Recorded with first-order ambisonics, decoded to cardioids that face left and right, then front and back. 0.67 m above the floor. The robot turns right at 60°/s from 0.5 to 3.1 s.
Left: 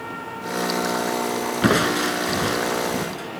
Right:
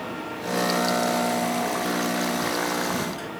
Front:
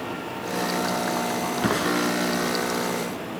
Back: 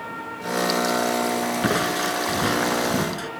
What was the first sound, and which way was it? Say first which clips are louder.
Crushing: left 6 dB, front 1 dB; 90° left.